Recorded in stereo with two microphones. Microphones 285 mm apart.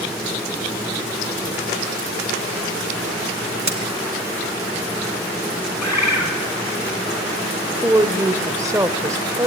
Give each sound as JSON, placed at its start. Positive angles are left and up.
{"t": 3.6, "sound": "a crack", "side_deg": -75, "distance_m": 2.5}
{"t": 5.8, "sound": "a bird", "side_deg": 70, "distance_m": 3.5}
{"t": 7.8, "sound": "a woman speaking", "side_deg": -10, "distance_m": 1.2}